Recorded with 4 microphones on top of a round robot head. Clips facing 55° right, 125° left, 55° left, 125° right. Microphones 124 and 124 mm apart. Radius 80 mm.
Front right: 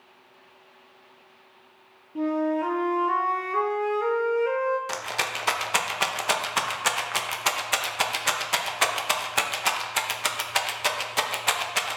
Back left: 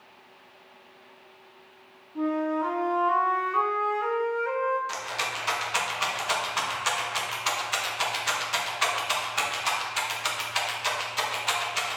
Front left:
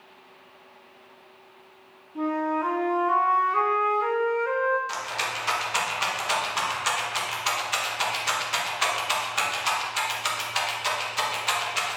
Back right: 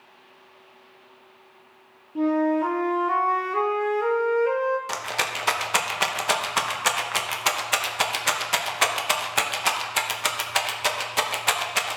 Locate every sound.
2.1 s a flute: 85° right, 0.7 m
4.9 s a rattle: 90° right, 0.9 m